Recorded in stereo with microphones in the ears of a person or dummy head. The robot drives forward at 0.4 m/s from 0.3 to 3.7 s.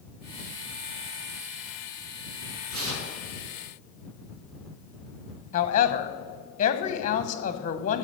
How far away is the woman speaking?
About 1.0 m.